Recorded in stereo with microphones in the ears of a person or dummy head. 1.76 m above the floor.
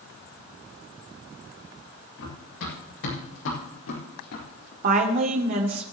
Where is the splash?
I don't hear a splash.